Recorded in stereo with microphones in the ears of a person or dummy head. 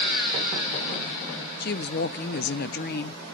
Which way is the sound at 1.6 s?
45° left (ahead or behind).